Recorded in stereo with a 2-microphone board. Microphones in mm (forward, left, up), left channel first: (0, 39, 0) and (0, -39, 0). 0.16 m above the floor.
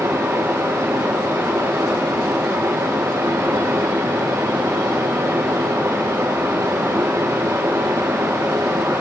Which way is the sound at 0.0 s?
45° right (ahead or behind).